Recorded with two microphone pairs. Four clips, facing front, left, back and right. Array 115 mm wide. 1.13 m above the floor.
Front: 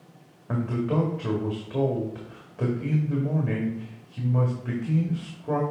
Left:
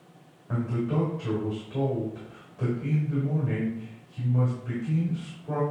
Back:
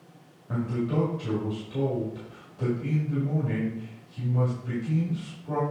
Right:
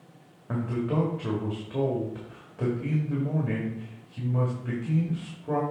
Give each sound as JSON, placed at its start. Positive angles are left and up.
{"t": 0.5, "sound": "a man speaking", "azimuth_deg": -25, "distance_m": 2.0}